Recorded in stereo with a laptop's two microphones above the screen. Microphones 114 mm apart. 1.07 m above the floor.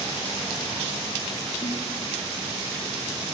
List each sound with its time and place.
1.6 s a snare drum: 65° left (ahead or behind), 2.5 m